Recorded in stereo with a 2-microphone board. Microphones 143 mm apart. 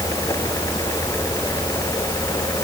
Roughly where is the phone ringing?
I don't hear a phone ringing.